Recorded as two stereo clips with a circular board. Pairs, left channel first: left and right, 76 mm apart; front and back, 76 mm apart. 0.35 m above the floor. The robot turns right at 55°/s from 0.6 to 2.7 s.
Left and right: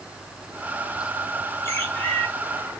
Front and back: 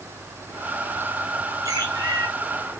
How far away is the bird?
About 4 m.